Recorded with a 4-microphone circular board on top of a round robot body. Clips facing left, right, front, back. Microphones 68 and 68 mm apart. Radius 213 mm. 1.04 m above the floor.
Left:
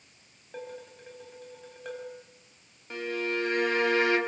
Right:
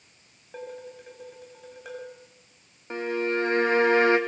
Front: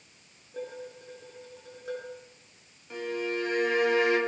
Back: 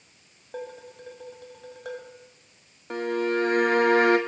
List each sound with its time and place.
0.5 s dishes clattering: 175° right, 5.5 m
2.9 s a violin: 150° right, 3 m